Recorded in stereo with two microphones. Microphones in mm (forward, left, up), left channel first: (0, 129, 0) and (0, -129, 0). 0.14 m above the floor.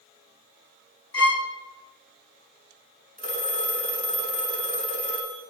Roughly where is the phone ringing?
Right.